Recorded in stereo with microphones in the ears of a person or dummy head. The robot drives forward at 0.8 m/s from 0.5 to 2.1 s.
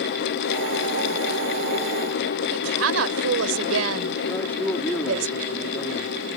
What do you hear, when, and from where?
2.5 s a woman speaking: 85° right
4.3 s a man speaking: 15° left (ahead or behind)